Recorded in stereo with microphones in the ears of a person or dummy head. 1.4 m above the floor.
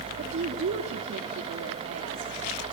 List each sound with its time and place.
0.2 s a woman speaking: 55° right (ahead or behind), 3 m; by 2.3 s 80° right, 3 m